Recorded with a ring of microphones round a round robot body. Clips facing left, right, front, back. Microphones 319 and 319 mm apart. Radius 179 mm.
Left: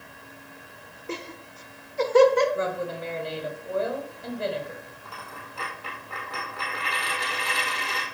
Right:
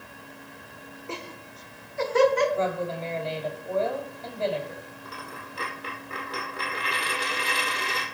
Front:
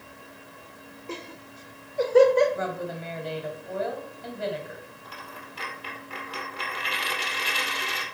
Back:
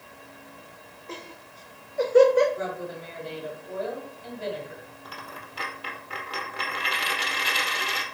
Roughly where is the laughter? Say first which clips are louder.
Left 4 dB, front 3 dB; ahead left.